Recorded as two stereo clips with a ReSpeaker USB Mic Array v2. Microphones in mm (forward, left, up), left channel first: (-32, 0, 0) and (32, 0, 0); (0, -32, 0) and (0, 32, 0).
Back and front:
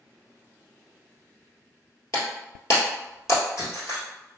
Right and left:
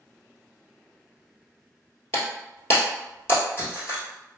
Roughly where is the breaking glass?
Behind right.